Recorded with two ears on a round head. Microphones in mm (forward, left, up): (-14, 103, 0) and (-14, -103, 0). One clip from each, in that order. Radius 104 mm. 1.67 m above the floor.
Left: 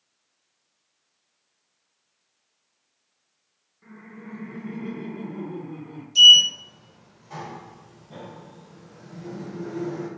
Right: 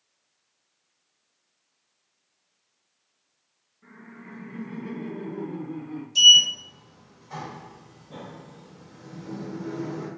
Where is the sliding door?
Centre (ahead or behind), 0.8 m.